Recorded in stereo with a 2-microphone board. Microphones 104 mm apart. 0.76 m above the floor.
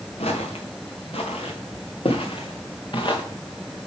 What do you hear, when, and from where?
0.2 s footsteps: 70° left (ahead or behind), 3.5 m; by 3.2 s 45° left (ahead or behind), 2.5 m